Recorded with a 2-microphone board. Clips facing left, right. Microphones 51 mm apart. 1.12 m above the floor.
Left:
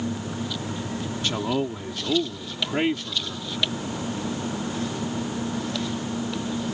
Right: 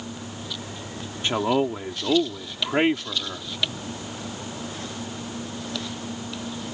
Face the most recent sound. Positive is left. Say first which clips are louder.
# right 5 dB
turn(degrees=-25)  # may be behind; listen again after turning